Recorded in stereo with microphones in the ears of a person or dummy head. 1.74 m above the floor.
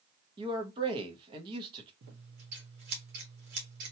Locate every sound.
0.4 s a man speaking: 30° right (ahead or behind), 0.7 m
2.0 s scissors: 55° right (ahead or behind), 1.0 m